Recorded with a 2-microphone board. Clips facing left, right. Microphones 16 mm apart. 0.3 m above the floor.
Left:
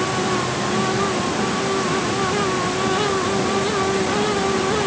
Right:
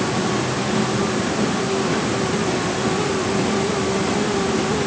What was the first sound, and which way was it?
Only background noise.